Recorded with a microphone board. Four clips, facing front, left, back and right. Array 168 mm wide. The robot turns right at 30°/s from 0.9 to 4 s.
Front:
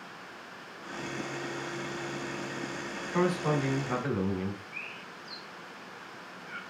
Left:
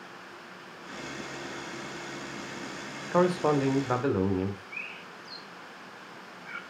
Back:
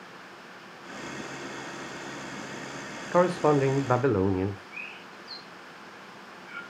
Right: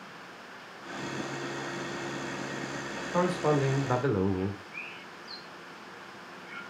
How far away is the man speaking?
About 1.2 m.